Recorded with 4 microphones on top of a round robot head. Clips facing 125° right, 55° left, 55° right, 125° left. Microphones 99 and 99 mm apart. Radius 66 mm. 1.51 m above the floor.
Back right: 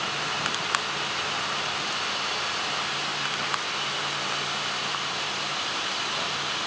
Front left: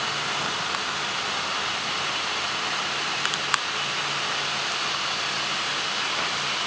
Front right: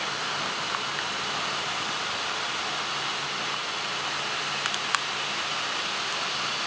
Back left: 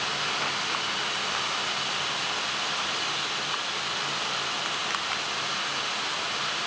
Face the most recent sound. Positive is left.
No sound to turn to.